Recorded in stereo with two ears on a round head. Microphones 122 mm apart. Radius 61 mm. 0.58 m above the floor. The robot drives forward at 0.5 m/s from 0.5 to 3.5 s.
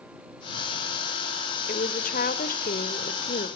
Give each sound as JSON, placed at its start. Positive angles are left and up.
{"t": 1.7, "sound": "a woman speaking", "side_deg": 60, "distance_m": 2.0}